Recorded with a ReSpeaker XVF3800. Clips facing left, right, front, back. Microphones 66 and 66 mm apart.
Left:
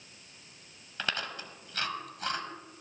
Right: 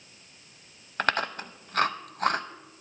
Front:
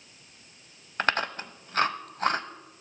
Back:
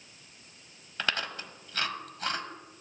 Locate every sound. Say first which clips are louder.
1.0 s chewing: right 8 dB, front 6 dB; 50° right, 0.6 m